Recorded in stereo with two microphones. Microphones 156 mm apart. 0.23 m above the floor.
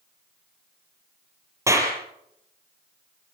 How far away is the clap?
About 5.5 m.